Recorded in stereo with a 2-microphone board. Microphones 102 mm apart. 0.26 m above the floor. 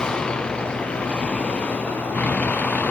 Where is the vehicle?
10° left (ahead or behind); by 2.9 s 15° left (ahead or behind).